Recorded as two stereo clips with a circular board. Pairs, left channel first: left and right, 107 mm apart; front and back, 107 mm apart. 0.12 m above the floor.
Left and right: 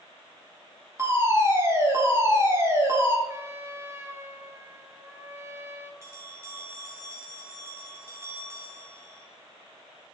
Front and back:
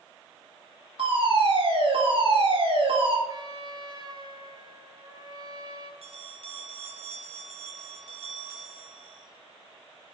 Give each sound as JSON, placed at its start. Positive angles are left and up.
{"t": 1.0, "sound": "a fire alarm", "azimuth_deg": -155, "distance_m": 7.5}
{"t": 3.3, "sound": "a trumpet", "azimuth_deg": -150, "distance_m": 2.0}
{"t": 6.0, "sound": "a bell", "azimuth_deg": -155, "distance_m": 3.0}